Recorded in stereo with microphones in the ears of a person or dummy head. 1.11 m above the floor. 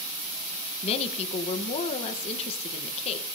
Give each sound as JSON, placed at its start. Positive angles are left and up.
{"t": 0.8, "sound": "a woman speaking", "side_deg": 35, "distance_m": 1.0}